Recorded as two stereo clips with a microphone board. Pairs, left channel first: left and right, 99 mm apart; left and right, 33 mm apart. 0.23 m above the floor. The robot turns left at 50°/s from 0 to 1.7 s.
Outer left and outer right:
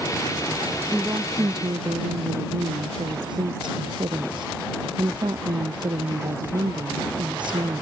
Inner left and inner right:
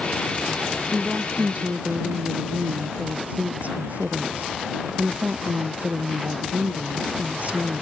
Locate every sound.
0.9 s a woman speaking: 10° right; by 7.8 s 50° right